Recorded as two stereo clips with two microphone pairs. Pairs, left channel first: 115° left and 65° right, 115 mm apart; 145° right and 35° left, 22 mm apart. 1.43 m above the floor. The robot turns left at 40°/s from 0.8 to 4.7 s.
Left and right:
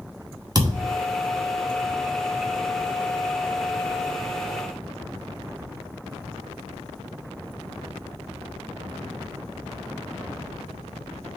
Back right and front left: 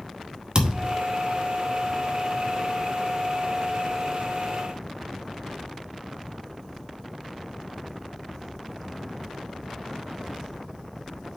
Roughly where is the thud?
Ahead.